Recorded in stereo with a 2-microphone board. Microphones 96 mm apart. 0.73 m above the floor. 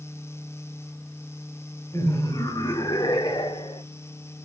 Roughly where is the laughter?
Left.